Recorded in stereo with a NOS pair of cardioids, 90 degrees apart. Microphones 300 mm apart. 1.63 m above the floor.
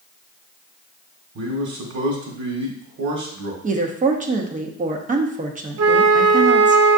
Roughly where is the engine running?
I don't hear an engine running.